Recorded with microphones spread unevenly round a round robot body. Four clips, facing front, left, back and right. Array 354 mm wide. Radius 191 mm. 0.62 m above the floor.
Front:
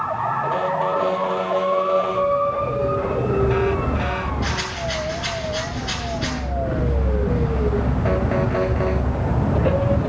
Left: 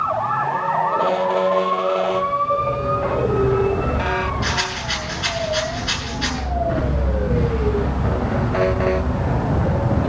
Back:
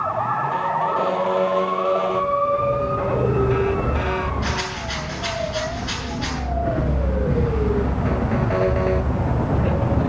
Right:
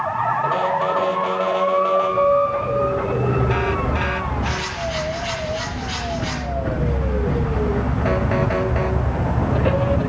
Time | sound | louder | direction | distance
4.4 | a rattle | even, even | 75° left | 9.5 m